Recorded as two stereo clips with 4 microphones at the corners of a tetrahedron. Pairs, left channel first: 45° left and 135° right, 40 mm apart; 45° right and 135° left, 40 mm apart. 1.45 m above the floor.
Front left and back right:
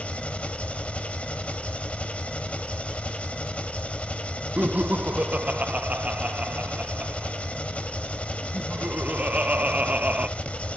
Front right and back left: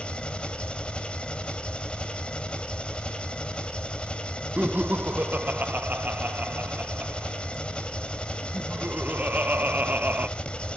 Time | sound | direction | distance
0.0 | an engine running | 5° left | 1.6 m
4.6 | laughter | 175° left | 1.3 m